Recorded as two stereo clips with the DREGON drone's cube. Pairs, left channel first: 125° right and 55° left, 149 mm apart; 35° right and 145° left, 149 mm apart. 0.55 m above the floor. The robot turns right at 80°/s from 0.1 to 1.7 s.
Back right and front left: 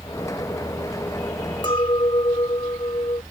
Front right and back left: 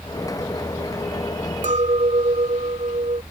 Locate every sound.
1.6 s a clink: straight behind